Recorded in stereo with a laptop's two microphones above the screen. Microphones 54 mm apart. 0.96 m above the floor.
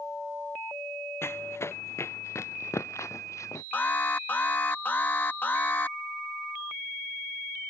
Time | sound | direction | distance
1.2 | running footsteps | 55° left (ahead or behind) | ?
3.7 | an alarm | 40° left (ahead or behind) | ?